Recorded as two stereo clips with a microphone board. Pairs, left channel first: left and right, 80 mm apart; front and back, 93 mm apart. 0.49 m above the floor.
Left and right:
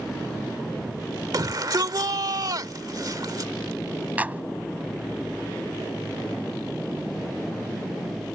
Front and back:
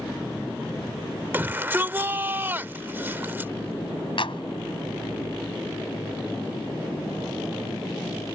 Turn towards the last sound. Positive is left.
turn(degrees=-20)